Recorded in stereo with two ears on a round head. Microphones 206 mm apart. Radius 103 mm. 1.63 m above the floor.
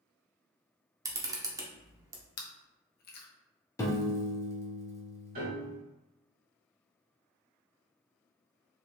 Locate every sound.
1.1 s a camera shutter: 15° right (ahead or behind), 0.6 m
2.4 s chewing: 40° left (ahead or behind), 0.6 m
3.8 s a piano: 15° left (ahead or behind), 0.6 m
5.3 s a piano: 40° right (ahead or behind), 1.7 m